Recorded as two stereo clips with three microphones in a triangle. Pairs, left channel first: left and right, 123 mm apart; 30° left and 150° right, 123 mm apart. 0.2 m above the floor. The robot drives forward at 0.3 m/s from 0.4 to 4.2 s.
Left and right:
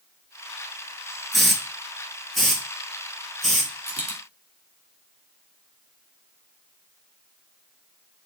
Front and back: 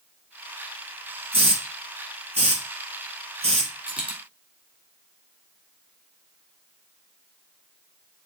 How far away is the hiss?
About 1.1 m.